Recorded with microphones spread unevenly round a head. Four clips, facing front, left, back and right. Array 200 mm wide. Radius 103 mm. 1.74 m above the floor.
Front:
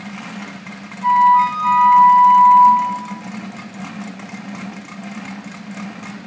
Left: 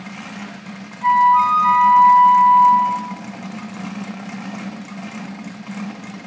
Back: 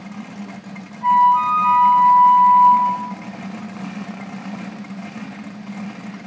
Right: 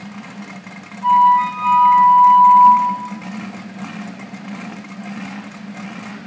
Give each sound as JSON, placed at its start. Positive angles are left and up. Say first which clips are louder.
{"t": 1.0, "sound": "a flute", "louder": "right 1 dB, front 2 dB", "azimuth_deg": 80, "distance_m": 8.0}